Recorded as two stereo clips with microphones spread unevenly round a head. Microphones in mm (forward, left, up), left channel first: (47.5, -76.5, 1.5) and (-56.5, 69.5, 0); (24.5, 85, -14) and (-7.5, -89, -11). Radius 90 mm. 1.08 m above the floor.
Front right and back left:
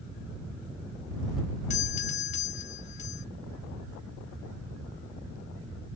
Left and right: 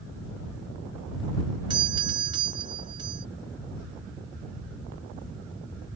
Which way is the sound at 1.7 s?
50° right.